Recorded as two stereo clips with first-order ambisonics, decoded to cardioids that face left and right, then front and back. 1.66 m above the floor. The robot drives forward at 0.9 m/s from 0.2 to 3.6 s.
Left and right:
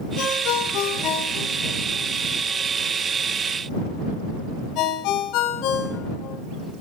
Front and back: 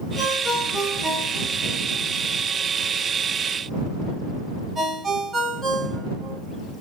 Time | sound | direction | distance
0.2 | a ringtone | 75° left | 3.5 m